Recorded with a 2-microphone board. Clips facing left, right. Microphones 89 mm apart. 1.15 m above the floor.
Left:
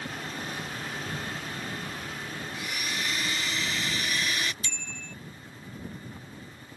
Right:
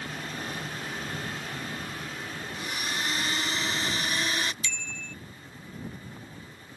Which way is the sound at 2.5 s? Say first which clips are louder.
Right 2 dB; 35° right (ahead or behind).